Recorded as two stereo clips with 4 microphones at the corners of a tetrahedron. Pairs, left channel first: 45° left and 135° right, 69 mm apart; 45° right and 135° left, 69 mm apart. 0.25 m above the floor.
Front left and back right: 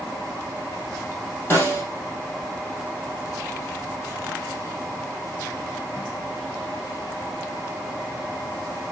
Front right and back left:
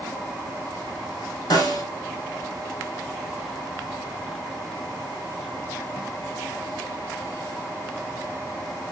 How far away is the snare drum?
About 4 m.